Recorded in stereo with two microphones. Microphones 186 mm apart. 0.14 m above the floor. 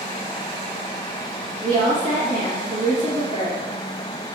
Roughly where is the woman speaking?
Right.